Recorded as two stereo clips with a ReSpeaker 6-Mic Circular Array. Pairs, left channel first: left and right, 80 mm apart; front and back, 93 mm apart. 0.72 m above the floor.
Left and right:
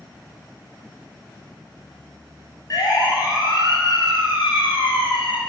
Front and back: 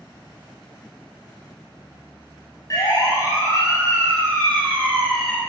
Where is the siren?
50° left, 6 m; by 5.4 s 85° left, 5.5 m.